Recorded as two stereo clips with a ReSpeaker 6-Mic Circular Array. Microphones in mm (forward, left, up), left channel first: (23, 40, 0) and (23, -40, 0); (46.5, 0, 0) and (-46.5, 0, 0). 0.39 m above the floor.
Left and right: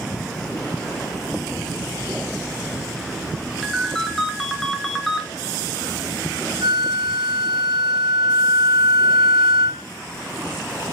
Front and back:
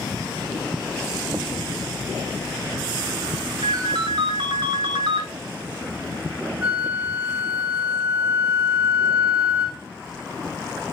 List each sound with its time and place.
3.6 s a ringtone: straight behind, 1.2 m
6.6 s a flute: 110° right, 2.5 m